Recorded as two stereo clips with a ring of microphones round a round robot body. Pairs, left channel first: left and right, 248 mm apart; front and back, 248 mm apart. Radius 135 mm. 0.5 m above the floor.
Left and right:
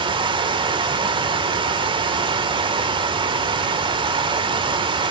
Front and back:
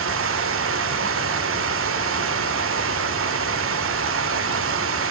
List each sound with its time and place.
0.0 s running water: 160° right, 1.6 m